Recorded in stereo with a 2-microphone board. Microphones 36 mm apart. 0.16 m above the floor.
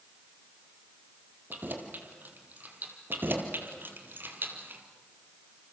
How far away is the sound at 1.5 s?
About 3 m.